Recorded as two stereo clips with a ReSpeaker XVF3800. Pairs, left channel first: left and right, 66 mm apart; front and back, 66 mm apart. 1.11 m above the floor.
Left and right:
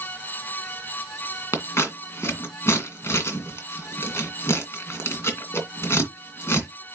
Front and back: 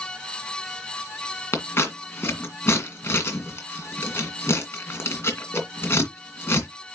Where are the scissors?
45° left, 2 m.